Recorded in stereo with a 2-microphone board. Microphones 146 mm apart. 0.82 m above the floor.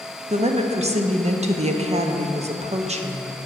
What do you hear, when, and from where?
0.3 s a woman speaking: 50° right (ahead or behind), 0.6 m